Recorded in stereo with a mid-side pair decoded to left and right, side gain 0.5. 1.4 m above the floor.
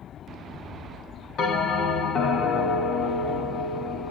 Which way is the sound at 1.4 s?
65° left.